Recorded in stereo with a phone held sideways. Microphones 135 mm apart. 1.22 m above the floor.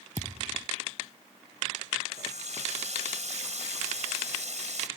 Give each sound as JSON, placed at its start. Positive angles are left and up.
{"t": 0.2, "sound": "a thud", "side_deg": -70}
{"t": 2.1, "sound": "a running tap", "side_deg": -65}